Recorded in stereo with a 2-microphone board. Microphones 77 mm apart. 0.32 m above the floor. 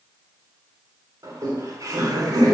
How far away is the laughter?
About 3 m.